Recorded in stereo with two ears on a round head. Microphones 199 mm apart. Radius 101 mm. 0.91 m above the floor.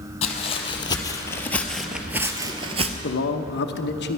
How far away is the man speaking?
About 0.8 m.